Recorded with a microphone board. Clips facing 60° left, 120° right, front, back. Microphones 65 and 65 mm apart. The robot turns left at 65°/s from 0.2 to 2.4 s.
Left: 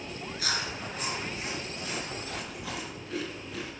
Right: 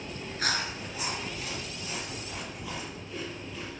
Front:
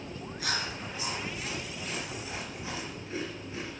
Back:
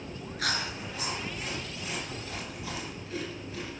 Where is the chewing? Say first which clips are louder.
Right 2 dB, back 2 dB; 165° right, 4 m; by 3.7 s 65° left, 4 m.